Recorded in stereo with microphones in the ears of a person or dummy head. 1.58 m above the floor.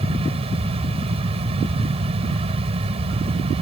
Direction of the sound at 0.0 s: 30° right (ahead or behind).